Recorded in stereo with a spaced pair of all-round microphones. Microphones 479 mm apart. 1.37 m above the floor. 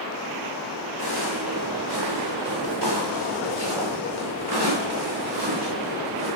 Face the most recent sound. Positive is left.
turn(degrees=-60)  # may be behind; listen again after turning